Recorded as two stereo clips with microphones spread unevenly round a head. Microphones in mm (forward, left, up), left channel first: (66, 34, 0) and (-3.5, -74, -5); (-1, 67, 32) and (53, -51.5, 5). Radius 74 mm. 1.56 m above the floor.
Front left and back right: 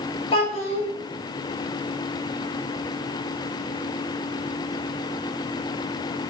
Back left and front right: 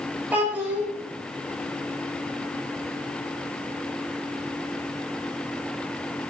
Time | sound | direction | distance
0.3 | a child speaking | 15° left | 4.5 m